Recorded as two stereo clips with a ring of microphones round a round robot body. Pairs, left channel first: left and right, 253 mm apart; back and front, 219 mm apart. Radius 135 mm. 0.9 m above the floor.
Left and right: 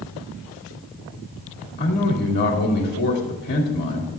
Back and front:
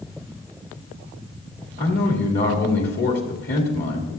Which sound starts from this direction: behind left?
A man speaking, at 1.8 s.